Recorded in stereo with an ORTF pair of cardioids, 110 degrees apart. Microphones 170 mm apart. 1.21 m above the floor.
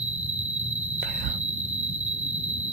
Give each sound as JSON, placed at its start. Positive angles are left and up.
{"t": 0.0, "sound": "an insect", "azimuth_deg": -40}
{"t": 1.0, "sound": "whispering", "azimuth_deg": -65}